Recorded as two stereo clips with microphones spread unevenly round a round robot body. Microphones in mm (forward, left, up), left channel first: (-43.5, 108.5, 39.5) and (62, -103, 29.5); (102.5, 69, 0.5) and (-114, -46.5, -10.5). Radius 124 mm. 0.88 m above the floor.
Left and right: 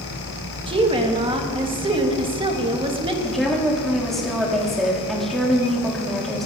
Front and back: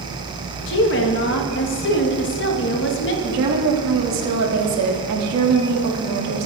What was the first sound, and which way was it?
A woman speaking, 5° right.